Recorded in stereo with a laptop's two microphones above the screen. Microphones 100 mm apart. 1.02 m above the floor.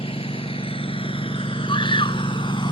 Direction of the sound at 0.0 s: 70° left (ahead or behind).